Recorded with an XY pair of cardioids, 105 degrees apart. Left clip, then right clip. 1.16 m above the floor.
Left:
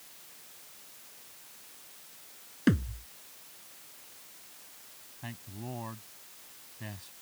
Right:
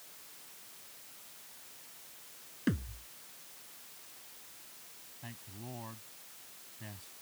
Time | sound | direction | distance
2.7 | a thud | 40° left | ?
5.2 | a man speaking | 30° left | ?